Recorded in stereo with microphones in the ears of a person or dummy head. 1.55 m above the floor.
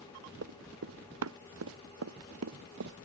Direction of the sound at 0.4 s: 85° right.